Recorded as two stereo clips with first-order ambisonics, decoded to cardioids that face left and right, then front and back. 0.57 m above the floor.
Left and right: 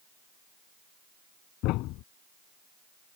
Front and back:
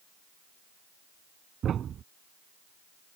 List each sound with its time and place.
1.6 s a thud: 120° left